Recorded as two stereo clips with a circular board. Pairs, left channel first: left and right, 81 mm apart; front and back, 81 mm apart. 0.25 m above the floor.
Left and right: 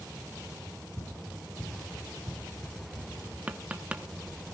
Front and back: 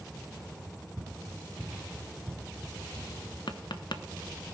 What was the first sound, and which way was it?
Running footsteps, 115° left.